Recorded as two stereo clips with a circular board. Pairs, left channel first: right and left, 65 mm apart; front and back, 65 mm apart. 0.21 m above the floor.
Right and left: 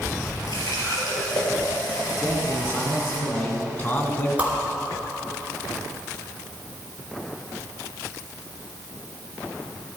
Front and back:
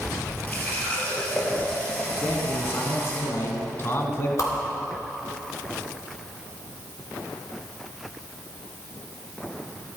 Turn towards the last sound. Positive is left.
turn(degrees=25)